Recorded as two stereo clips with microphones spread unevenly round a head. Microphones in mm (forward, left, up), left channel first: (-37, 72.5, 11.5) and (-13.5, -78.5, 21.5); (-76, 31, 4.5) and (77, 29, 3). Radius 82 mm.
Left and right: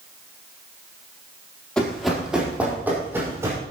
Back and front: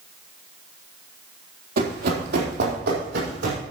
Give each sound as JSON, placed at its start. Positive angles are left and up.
{"t": 1.8, "sound": "running footsteps", "azimuth_deg": 15, "distance_m": 3.5}